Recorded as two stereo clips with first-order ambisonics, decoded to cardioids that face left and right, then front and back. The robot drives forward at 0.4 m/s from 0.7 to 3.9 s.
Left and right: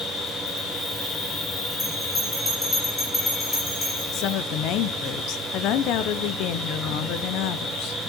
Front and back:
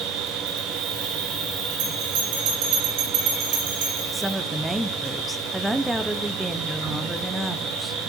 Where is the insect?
150° left, 4 m; by 8.1 s 155° left, 5.5 m.